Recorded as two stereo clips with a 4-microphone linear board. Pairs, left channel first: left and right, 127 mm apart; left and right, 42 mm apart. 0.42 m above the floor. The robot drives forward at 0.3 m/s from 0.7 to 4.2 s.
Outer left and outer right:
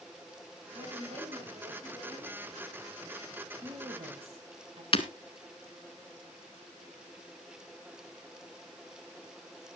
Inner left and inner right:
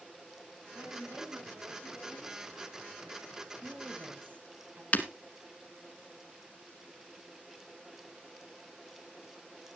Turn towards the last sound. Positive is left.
turn(degrees=45)  # may be behind; listen again after turning